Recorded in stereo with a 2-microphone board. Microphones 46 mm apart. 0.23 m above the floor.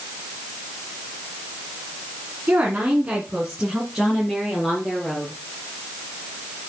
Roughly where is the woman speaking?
Right.